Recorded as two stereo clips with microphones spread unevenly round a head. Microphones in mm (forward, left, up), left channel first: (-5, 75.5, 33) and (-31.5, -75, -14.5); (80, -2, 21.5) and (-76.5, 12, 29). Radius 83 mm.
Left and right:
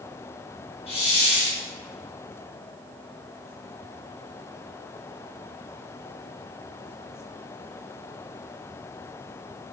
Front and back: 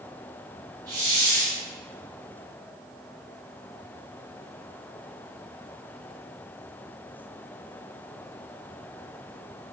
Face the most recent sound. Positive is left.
turn(degrees=110)